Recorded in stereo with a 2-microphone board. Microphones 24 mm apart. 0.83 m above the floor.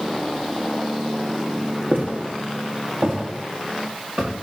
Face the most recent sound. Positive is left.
turn(degrees=-80)